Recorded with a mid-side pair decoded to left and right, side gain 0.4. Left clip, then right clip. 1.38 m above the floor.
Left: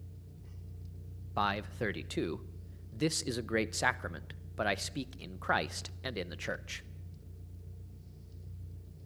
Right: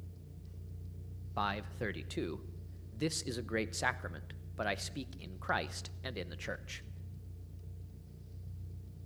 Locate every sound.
1.4 s a man speaking: 30° left, 0.9 m